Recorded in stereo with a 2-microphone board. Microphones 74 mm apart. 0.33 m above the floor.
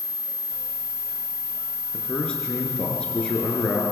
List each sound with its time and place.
1.9 s a man speaking: 10° left (ahead or behind), 5.5 m